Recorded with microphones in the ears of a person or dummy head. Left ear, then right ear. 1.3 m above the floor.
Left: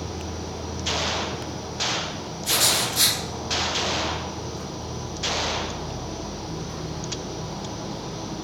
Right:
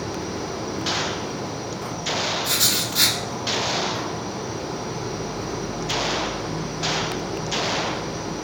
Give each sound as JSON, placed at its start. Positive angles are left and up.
{"t": 0.0, "sound": "an insect", "side_deg": -80, "distance_m": 3.0}
{"t": 2.4, "sound": "writing", "side_deg": -15, "distance_m": 3.0}